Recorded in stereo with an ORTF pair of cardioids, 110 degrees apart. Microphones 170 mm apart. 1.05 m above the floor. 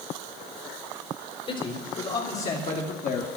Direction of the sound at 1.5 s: 35° left.